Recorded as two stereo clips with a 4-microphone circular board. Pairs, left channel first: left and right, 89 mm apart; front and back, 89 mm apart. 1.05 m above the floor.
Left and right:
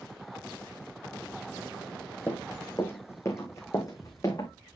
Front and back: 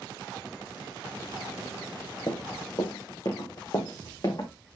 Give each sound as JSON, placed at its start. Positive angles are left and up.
{"t": 2.3, "sound": "running footsteps", "azimuth_deg": 20, "distance_m": 2.5}